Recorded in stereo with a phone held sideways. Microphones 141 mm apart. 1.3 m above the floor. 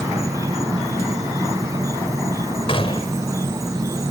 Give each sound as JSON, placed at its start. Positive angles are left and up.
{"t": 0.0, "sound": "an insect", "side_deg": -25}
{"t": 2.7, "sound": "a gunshot", "side_deg": 40}